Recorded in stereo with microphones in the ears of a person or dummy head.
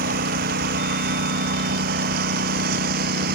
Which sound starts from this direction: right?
A lawn mower, at 0.0 s.